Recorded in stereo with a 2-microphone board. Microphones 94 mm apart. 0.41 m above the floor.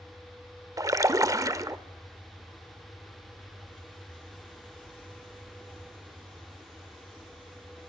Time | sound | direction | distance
0.8 | a splash | 35° right (ahead or behind) | 0.7 m